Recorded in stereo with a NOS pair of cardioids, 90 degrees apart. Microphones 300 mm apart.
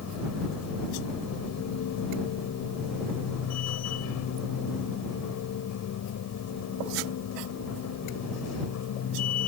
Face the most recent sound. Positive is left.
turn(degrees=60)